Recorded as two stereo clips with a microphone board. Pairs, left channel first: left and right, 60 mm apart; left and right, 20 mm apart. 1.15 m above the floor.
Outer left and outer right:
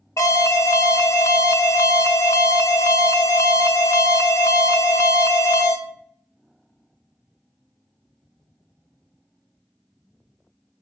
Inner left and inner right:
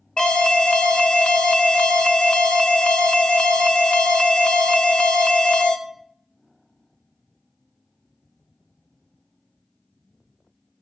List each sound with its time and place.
0.2 s an alarm: 50° left (ahead or behind), 1.1 m